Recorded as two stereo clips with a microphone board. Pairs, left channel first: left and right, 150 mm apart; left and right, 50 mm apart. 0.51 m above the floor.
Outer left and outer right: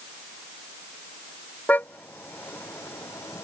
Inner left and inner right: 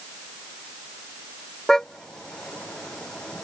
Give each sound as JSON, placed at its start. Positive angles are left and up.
{"t": 1.7, "sound": "a car horn", "side_deg": 10}